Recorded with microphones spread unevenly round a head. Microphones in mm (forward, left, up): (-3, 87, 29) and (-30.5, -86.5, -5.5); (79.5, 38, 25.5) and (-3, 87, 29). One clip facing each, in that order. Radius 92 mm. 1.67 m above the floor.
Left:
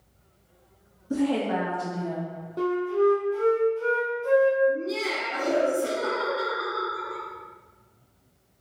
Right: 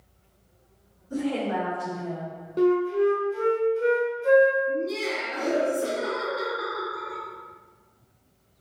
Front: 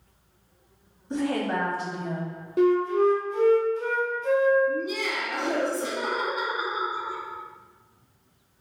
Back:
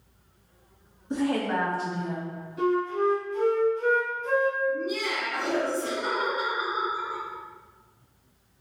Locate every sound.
1.1 s a woman speaking: 70° left, 0.6 m; by 2.4 s 50° left, 1.5 m
2.6 s a flute: 35° right, 0.7 m
4.7 s laughter: 25° right, 1.0 m